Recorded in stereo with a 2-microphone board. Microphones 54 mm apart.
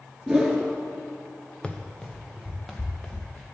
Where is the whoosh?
5° right (ahead or behind), 1.8 m.